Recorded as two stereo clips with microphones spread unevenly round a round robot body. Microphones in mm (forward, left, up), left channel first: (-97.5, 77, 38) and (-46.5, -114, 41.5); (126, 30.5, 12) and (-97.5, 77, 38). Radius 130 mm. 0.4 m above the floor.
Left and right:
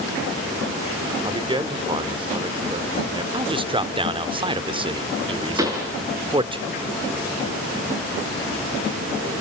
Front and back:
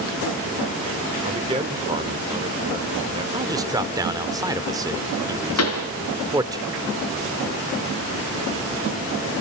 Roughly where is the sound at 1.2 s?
Behind right.